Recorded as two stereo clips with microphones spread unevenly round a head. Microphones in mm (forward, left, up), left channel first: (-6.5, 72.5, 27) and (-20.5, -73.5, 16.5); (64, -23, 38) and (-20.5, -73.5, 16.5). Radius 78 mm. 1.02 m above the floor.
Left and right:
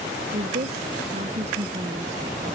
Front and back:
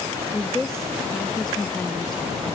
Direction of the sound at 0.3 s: 60° right.